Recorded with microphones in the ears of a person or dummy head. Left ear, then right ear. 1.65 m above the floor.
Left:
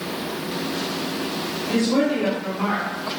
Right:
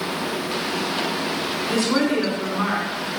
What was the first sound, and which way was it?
A woman speaking, 60° right (ahead or behind).